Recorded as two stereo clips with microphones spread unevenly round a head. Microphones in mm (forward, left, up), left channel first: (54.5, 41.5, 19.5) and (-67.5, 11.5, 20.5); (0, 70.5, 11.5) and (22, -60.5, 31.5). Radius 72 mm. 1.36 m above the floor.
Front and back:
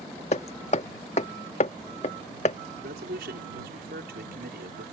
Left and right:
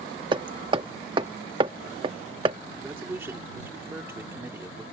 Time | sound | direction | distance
0.3 | hammering | 30° right | ?
2.8 | a man speaking | 155° right | ?